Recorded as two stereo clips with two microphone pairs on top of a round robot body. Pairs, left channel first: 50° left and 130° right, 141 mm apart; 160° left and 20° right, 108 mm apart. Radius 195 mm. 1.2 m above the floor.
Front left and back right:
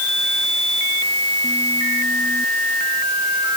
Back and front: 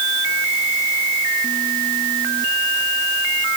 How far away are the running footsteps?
I don't hear running footsteps.